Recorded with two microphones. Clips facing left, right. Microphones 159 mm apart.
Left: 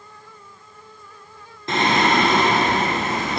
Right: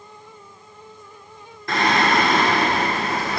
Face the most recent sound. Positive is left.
turn(degrees=25)  # may be behind; listen again after turning